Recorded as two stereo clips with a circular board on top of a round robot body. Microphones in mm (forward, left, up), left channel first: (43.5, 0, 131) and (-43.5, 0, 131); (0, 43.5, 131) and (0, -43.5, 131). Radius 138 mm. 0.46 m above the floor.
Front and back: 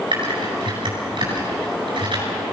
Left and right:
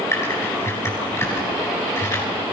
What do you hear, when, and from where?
0.1 s typing on a keyboard: 150° left, 9 m